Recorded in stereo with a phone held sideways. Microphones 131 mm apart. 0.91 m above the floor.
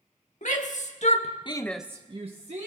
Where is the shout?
70° left (ahead or behind), 2 m; by 2.7 s 60° right (ahead or behind), 1.5 m.